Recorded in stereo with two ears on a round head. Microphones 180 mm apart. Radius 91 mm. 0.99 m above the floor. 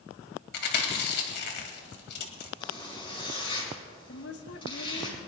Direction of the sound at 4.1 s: 55° left (ahead or behind).